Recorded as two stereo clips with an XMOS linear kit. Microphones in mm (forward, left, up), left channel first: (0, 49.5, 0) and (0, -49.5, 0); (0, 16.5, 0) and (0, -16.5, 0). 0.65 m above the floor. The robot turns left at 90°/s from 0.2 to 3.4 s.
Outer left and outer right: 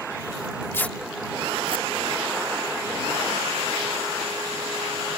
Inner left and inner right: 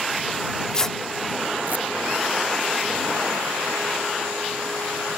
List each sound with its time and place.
0.7 s tearing paper: 25° left (ahead or behind); by 1.9 s 65° right (ahead or behind)